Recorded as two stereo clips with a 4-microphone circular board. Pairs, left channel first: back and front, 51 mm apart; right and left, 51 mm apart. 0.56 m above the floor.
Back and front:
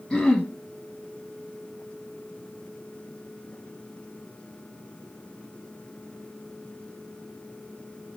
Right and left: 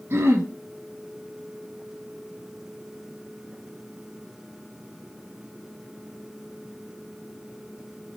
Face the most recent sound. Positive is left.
turn(degrees=105)